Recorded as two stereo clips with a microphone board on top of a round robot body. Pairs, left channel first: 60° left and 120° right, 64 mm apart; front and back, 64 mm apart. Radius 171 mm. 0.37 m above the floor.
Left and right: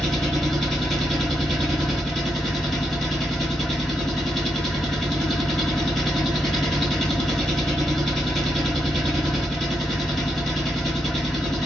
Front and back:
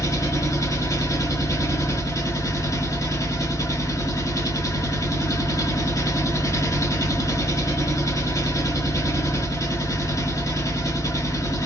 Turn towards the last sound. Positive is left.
turn(degrees=-25)